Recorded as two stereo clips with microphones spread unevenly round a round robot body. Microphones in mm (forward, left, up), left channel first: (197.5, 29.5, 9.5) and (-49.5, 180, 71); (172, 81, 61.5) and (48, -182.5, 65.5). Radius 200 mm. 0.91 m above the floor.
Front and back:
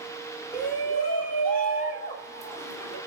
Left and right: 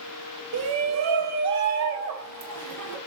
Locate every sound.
0.5 s a shout: 85° right, 1.4 m; by 3.0 s 100° right, 3 m